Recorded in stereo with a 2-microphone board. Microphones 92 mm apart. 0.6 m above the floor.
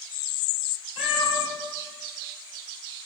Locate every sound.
1.0 s a cat meowing: 85° left, 3.5 m